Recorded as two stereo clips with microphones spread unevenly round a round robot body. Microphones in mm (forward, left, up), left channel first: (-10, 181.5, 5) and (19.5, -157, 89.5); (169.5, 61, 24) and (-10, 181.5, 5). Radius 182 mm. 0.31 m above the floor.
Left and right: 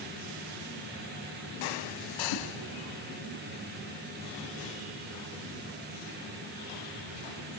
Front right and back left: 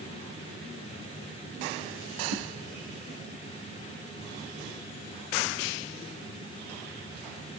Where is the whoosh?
130° left, 8 m.